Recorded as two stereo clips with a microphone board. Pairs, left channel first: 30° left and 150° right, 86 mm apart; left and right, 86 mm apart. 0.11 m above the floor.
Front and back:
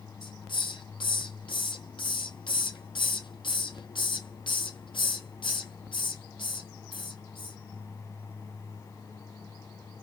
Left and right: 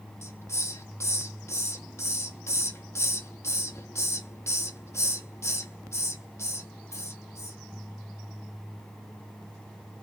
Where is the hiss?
35° left, 1.0 m.